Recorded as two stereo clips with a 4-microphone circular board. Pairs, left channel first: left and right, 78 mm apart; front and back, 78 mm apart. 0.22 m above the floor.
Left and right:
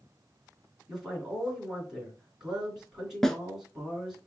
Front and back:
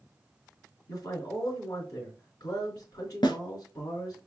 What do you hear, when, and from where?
0.9 s a man speaking: 10° right, 2.5 m
3.2 s a snare drum: 5° left, 0.8 m